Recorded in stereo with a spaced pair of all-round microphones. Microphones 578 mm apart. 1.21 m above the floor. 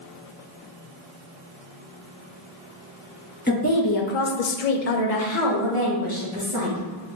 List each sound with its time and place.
3.5 s a woman speaking: 15° left (ahead or behind), 0.7 m; by 6.8 s 50° left (ahead or behind), 1.9 m